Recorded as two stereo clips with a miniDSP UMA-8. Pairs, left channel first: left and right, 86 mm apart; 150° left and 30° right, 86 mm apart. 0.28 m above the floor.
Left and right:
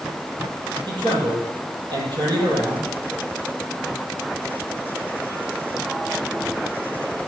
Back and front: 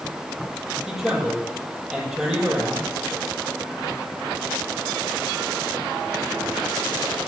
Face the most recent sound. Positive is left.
turn(degrees=-115)